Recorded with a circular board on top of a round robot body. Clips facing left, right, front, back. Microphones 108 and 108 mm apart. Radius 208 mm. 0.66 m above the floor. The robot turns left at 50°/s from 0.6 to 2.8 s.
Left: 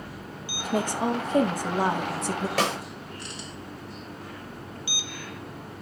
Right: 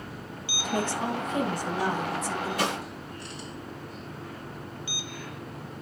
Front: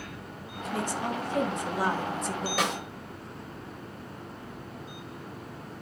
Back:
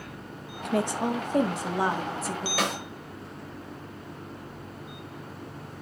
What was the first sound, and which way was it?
A woman speaking, 175° left.